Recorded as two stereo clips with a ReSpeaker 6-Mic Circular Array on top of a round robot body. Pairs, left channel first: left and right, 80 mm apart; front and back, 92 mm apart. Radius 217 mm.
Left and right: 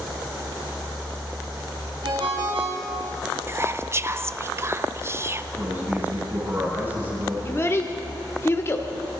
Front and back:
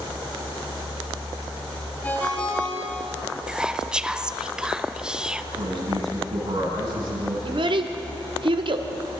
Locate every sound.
2.0 s a ringtone: 75° right, 4 m
3.5 s whispering: 105° right, 1.0 m
5.5 s a man speaking: 155° right, 8 m
7.5 s a child speaking: 150° left, 1.6 m